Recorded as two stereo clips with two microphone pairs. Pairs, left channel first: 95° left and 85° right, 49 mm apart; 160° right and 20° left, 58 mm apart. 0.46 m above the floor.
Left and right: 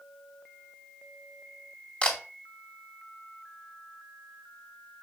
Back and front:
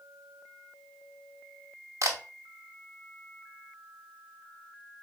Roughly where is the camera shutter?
Ahead left.